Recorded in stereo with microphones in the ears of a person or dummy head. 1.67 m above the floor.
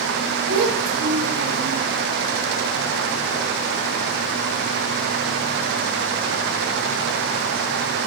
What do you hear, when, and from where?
0.5 s a child speaking: 75° right (ahead or behind), 2.5 m; by 1.8 s 65° right (ahead or behind), 3 m